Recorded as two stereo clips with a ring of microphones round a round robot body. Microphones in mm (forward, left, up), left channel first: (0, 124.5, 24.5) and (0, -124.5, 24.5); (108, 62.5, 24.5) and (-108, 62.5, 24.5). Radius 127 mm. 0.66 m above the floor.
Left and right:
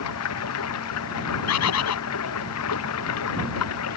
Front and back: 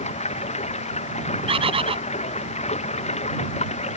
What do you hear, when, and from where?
0.0 s running water: 60° left
1.5 s a bird: 115° left